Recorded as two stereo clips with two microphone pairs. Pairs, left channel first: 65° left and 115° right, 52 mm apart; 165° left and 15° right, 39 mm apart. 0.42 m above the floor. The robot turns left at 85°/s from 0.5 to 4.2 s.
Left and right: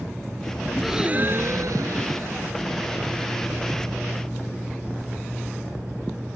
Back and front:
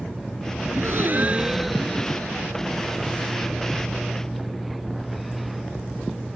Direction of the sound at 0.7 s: 20° right.